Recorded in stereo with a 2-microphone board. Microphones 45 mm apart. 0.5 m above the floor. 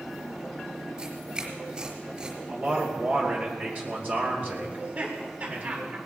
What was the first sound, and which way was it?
Tearing paper, 20° right (ahead or behind).